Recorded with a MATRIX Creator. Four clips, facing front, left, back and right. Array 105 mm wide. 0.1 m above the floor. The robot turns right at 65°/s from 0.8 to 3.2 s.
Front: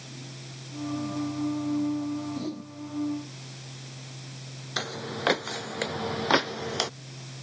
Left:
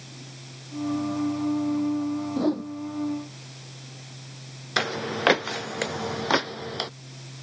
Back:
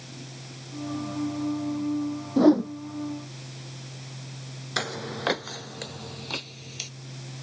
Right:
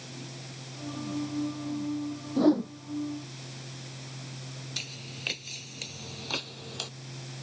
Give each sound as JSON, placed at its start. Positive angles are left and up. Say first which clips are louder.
{"t": 2.4, "sound": "a whoosh", "louder": "right 4 dB, back 16 dB", "azimuth_deg": 180}
{"t": 4.8, "sound": "footsteps", "louder": "left 18 dB, back 2 dB", "azimuth_deg": 100}